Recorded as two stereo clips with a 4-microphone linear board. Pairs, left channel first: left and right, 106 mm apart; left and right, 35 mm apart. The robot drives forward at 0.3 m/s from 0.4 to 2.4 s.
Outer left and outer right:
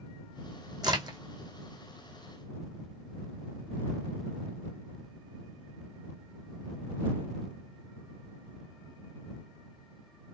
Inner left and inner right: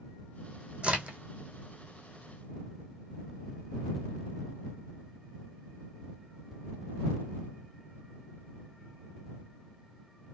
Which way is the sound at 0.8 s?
40° right (ahead or behind).